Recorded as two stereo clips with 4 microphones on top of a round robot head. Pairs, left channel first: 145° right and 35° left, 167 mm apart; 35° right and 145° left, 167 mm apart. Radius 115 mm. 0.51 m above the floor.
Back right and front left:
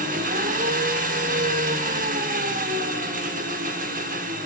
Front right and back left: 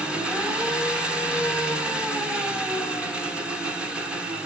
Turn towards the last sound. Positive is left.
turn(degrees=65)